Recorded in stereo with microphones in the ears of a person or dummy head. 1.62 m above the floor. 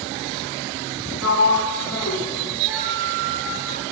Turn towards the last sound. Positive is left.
turn(degrees=-10)  # may be behind; listen again after turning